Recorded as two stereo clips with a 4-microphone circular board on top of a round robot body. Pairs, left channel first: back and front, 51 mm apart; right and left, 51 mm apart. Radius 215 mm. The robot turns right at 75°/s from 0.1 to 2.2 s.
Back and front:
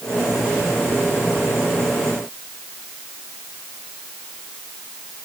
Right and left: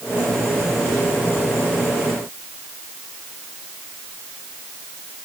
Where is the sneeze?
No sneeze in this recording.